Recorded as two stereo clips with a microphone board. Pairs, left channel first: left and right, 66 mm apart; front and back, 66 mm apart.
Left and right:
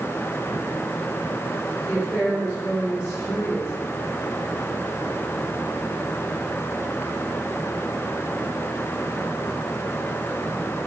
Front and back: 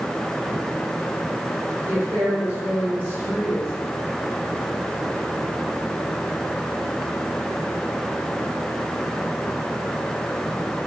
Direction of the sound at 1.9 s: 130° left.